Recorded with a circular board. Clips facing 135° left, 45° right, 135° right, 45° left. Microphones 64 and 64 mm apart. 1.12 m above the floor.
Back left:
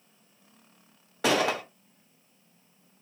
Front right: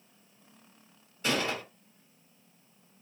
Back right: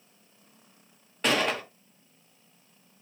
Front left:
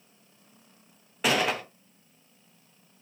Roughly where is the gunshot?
Behind left.